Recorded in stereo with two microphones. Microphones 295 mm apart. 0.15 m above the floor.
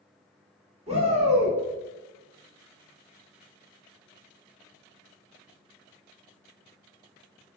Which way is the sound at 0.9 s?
20° right (ahead or behind).